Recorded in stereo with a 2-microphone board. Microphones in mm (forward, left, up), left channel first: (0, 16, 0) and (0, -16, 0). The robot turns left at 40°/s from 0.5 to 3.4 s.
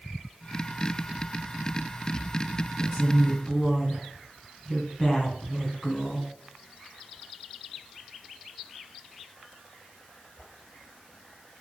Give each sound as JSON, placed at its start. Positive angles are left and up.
{"t": 2.8, "sound": "a woman speaking", "side_deg": 20, "distance_m": 1.4}